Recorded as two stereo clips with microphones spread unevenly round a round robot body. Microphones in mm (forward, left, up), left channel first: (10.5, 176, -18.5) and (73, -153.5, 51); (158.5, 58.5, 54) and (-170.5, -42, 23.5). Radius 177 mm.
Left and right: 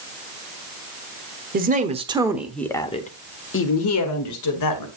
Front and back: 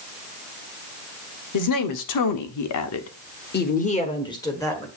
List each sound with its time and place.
1.5 s a woman speaking: 10° right, 1.5 m; by 4.9 s 105° left, 1.9 m